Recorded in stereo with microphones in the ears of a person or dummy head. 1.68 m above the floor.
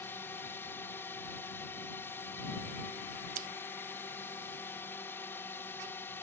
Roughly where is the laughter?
No laughter in this recording.